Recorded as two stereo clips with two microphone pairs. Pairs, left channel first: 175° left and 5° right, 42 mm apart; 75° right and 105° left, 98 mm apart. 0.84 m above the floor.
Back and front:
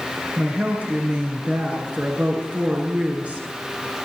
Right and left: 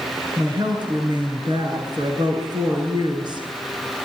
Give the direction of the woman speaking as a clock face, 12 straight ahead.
10 o'clock.